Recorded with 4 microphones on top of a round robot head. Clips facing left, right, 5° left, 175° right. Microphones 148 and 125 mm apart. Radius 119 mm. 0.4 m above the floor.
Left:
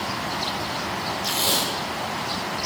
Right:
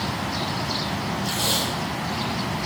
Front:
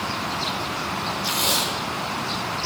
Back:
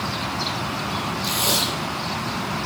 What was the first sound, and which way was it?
Tape being pulled, 115° left.